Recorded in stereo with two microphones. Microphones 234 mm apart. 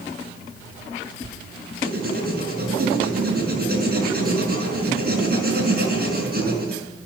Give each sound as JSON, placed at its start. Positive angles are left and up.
{"t": 1.8, "sound": "writing", "side_deg": -40, "distance_m": 4.5}